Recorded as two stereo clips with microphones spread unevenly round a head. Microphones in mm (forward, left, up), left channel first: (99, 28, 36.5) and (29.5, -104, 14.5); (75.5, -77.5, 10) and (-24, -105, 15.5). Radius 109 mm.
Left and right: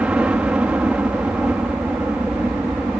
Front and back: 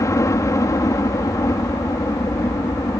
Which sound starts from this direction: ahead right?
A helicopter, at 0.0 s.